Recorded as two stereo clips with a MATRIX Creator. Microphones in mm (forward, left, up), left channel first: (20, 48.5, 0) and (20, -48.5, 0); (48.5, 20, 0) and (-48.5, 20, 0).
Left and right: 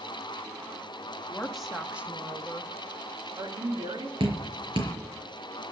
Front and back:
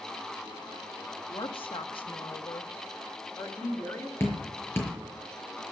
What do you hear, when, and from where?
1.3 s a woman speaking: 10° left, 1.9 m; by 4.1 s 60° right, 3 m
4.2 s dripping: 65° right, 5 m